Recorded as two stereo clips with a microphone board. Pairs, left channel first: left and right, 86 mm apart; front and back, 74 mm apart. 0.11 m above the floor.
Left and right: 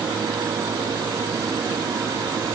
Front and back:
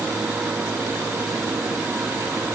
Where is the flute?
No flute in this recording.